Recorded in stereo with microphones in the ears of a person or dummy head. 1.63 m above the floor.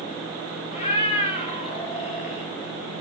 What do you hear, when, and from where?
0.7 s a cat meowing: 30° left (ahead or behind), 1.6 m; by 2.5 s 40° left (ahead or behind), 2.5 m